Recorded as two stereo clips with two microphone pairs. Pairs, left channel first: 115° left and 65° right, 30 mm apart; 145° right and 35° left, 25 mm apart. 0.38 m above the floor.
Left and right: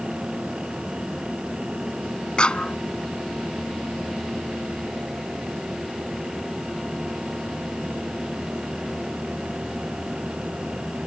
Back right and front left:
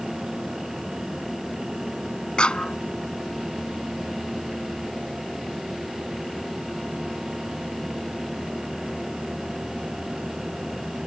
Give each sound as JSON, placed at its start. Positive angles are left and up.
{"t": 2.4, "sound": "a clap", "azimuth_deg": 170}